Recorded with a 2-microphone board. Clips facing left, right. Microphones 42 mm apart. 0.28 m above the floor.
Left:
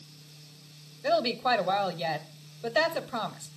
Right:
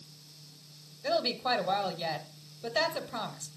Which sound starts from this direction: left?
A woman speaking, at 1.0 s.